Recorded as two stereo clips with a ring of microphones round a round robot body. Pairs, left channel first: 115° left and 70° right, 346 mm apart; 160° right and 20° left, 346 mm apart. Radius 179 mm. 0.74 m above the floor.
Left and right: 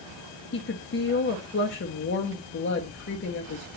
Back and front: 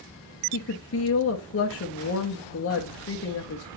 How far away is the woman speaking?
About 1.0 m.